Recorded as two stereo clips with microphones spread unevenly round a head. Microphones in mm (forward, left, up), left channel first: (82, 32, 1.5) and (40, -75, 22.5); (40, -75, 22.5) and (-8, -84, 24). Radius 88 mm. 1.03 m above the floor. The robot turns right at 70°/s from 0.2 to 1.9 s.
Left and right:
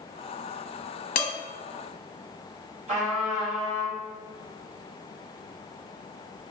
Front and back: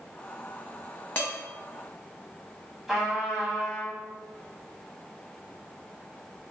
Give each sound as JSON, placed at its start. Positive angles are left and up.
{"t": 1.1, "sound": "dishes clattering", "azimuth_deg": 90, "distance_m": 0.7}
{"t": 2.9, "sound": "a trumpet", "azimuth_deg": -85, "distance_m": 1.5}